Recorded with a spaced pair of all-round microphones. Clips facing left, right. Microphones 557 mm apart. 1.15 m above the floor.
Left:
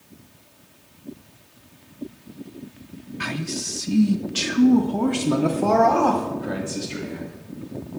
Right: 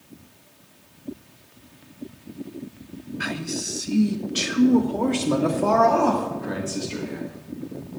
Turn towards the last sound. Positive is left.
turn(degrees=5)  # may be behind; listen again after turning